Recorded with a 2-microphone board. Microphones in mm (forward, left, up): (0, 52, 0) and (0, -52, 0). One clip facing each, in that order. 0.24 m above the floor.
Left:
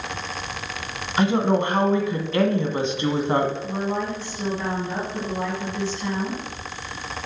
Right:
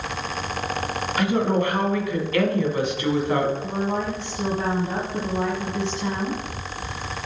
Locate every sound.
1.2 s a woman speaking: 25° left (ahead or behind), 1.5 m
3.6 s a woman speaking: 20° right (ahead or behind), 1.4 m